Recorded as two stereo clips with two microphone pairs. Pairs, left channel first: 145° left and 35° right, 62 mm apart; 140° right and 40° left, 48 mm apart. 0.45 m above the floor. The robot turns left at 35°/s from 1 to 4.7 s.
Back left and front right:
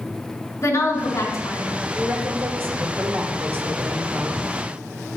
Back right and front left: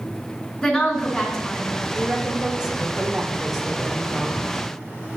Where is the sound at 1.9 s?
Straight ahead, 1.1 m; by 4.5 s 90° right, 1.1 m.